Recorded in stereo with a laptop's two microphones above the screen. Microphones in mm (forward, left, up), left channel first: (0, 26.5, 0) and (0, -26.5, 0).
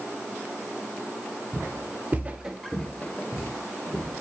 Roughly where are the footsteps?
Right.